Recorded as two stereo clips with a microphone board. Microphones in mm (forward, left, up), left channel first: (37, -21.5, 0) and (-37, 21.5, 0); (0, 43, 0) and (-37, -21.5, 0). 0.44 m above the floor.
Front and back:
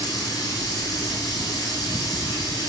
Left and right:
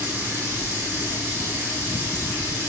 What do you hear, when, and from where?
0.0 s running water: 65° right, 1.6 m